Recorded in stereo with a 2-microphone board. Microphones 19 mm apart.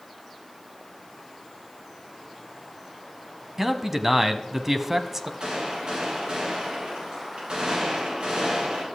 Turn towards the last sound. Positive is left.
turn(degrees=-85)